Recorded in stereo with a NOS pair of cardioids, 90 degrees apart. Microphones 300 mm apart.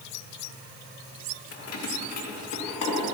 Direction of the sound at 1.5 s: 50° left.